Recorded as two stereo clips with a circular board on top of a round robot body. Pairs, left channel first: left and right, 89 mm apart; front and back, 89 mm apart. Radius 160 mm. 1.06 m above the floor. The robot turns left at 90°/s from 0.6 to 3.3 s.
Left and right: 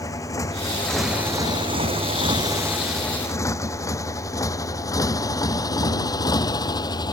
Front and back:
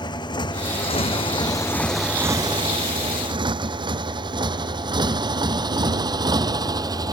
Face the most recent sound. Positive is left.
turn(degrees=135)